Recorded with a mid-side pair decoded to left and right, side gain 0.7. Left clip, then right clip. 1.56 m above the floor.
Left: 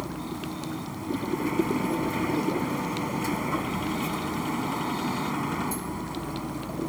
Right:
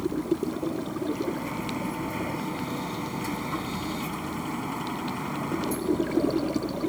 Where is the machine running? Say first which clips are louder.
Right 6 dB; 10° left.